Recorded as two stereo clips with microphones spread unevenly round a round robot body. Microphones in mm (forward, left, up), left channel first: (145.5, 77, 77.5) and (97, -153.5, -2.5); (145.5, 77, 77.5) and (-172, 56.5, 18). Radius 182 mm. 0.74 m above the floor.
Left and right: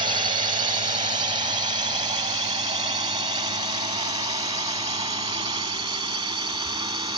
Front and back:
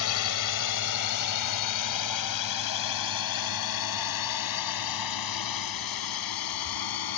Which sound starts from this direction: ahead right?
A drone, at 0.0 s.